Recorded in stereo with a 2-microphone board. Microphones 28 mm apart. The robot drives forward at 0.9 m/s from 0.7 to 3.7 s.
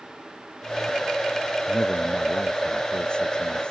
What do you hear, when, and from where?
1.7 s a man speaking: 40° left (ahead or behind); by 3.7 s 35° left (ahead or behind)